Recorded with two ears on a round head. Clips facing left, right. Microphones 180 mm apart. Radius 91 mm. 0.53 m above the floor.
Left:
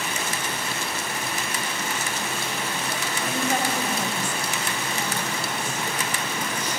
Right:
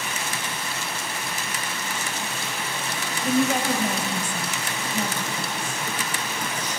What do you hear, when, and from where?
3.2 s a woman speaking: 75° right (ahead or behind), 3.5 m